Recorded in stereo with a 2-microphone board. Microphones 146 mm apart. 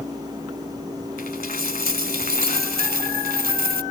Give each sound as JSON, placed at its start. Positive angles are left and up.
{"t": 1.2, "sound": "a dropped coin", "side_deg": 90}